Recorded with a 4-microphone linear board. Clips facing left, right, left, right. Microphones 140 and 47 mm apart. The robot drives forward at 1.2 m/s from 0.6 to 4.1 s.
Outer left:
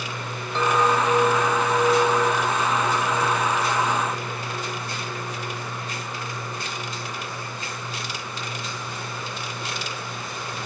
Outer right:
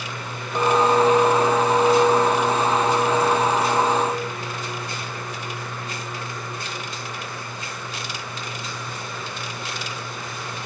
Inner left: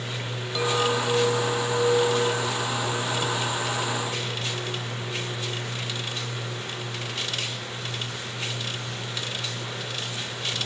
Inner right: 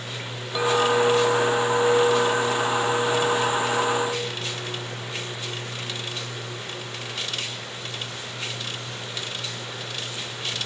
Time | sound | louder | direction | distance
0.6 | a clink | outer right 4 dB, inner right 4 dB | 15° right (ahead or behind) | 4 m